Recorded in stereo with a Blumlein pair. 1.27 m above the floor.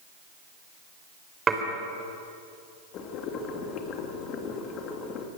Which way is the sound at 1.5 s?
20° right.